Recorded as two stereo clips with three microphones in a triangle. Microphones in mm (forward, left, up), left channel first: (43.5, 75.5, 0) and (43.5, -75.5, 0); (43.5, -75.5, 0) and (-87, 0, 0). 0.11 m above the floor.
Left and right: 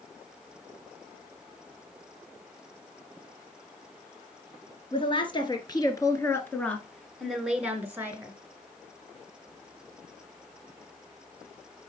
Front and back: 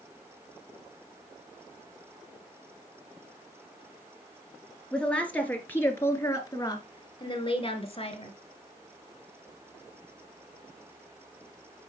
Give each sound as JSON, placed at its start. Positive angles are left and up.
{"t": 4.9, "sound": "a woman speaking", "azimuth_deg": 50, "distance_m": 2.0}